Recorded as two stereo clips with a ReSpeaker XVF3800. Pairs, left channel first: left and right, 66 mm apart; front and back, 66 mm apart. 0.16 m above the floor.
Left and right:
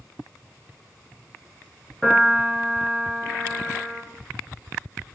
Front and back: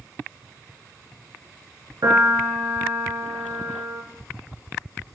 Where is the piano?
175° left, 0.6 m.